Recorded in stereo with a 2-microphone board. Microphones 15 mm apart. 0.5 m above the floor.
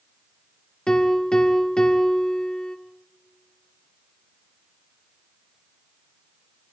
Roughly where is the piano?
Left.